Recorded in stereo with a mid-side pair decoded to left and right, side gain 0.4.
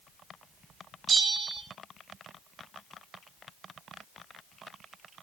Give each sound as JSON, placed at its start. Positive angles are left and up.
{"t": 1.1, "sound": "a bell", "azimuth_deg": -40, "distance_m": 6.0}